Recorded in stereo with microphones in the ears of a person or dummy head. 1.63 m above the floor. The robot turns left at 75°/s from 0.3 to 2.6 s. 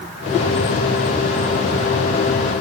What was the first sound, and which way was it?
Only background noise.